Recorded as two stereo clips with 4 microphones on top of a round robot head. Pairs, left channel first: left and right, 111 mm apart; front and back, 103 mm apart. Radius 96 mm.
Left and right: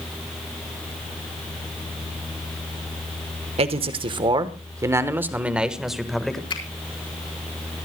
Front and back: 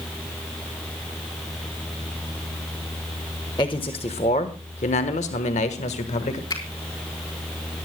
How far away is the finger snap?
About 4.5 m.